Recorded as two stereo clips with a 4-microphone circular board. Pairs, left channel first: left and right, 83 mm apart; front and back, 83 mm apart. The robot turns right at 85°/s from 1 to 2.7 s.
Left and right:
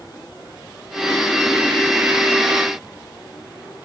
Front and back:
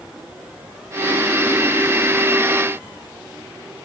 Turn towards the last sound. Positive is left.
No sound to turn to.